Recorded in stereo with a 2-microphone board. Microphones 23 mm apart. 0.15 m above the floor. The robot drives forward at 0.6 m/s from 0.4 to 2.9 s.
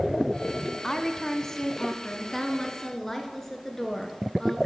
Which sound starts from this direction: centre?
A woman speaking, at 0.8 s.